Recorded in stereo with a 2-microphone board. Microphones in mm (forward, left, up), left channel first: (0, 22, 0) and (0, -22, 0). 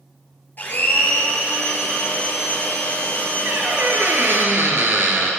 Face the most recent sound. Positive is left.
turn(degrees=-60)  # may be behind; listen again after turning